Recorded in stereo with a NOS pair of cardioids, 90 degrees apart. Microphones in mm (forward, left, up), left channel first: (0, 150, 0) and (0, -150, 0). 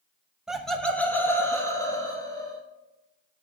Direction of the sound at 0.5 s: 5° right.